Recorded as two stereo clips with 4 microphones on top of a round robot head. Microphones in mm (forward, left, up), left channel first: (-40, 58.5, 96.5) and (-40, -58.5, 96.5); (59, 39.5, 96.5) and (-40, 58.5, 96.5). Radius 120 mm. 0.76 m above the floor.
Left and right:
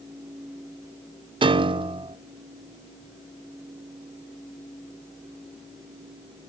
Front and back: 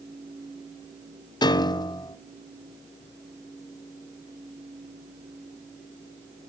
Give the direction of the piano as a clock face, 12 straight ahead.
2 o'clock.